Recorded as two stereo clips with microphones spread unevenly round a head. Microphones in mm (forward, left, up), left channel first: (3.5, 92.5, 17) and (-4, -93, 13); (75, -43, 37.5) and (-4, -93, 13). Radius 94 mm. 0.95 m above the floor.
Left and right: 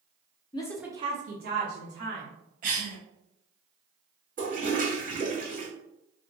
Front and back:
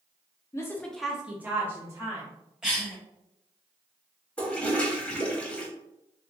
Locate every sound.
0.5 s a woman speaking: 80° left, 0.6 m; by 2.3 s 95° right, 1.6 m
2.6 s a cough: 80° right, 0.7 m
4.4 s a toilet flushing: 45° right, 1.0 m